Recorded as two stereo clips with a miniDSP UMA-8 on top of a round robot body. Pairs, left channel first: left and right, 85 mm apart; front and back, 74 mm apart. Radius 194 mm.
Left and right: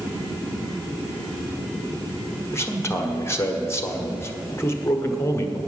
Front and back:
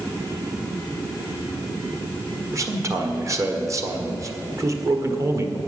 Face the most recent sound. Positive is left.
turn(degrees=140)